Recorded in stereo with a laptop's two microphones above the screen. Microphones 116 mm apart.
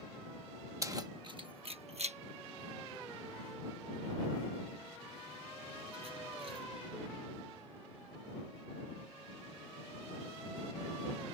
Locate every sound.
0.8 s keys jangling: 25° right (ahead or behind); by 6.7 s 55° right (ahead or behind)